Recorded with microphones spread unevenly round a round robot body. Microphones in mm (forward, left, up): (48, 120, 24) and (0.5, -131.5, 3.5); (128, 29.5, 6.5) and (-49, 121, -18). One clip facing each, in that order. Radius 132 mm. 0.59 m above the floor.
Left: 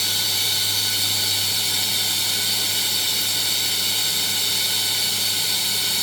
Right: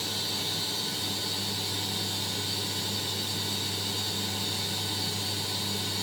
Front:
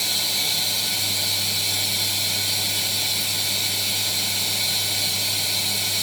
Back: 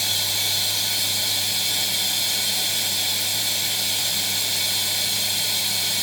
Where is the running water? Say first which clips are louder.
Even, front 1 dB; 65° left, 1.2 m.